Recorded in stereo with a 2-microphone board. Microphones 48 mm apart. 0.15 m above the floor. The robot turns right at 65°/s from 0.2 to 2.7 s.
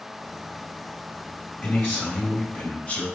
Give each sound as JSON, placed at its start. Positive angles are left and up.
{"t": 1.6, "sound": "a man speaking", "azimuth_deg": 45, "distance_m": 1.8}